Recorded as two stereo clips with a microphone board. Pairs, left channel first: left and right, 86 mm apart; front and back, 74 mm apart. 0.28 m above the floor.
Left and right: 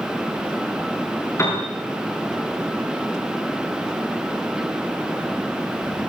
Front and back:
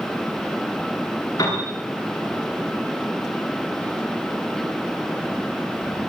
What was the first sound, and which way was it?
A piano, 35° left.